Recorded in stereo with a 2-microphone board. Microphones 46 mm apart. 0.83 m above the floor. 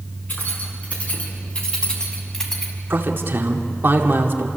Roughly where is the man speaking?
Right.